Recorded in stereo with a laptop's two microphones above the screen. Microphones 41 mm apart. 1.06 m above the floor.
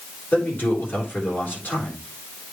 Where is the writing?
No writing in this recording.